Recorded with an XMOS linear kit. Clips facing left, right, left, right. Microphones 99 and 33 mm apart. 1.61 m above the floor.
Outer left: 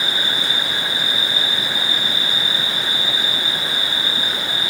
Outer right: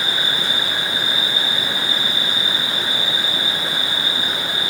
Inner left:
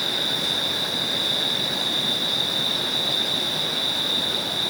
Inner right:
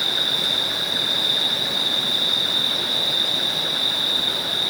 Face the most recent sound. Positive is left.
turn(degrees=-55)  # may be behind; listen again after turning